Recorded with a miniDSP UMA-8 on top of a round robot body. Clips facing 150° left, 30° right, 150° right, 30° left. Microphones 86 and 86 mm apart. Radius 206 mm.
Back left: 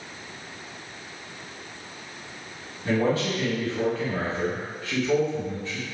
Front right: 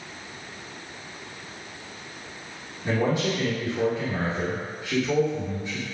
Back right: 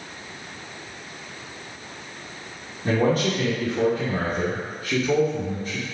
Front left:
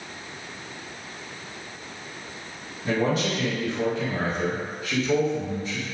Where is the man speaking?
110° right, 1.4 m.